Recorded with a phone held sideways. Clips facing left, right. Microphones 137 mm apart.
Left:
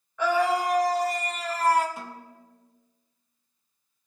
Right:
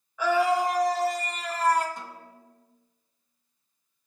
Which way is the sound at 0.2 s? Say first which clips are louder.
Right 1 dB; 5° right (ahead or behind).